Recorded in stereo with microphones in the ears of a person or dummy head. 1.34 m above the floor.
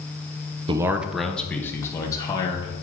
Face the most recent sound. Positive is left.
turn(degrees=20)  # may be behind; listen again after turning